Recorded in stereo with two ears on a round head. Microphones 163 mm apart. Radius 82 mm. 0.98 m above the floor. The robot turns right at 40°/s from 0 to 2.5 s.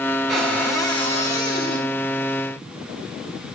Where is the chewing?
I don't hear chewing.